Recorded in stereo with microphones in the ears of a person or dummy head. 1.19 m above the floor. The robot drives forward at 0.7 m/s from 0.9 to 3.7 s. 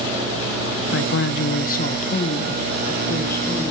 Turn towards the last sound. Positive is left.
turn(degrees=20)  # may be behind; listen again after turning